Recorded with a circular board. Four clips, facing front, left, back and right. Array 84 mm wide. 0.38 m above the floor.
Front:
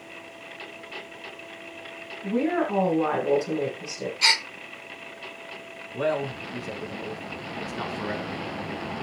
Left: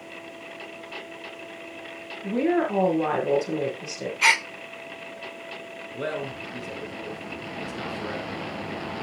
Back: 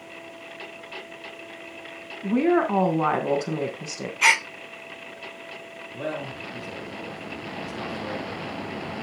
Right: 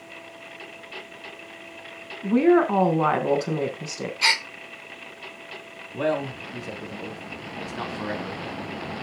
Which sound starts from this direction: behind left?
A gasp, at 4.2 s.